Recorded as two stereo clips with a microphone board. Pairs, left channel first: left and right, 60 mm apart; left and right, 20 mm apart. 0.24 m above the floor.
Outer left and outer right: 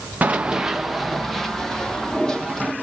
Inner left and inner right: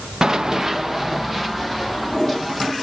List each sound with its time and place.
0.2 s running footsteps: 30° right (ahead or behind), 0.8 m; by 2.7 s 10° left (ahead or behind), 4 m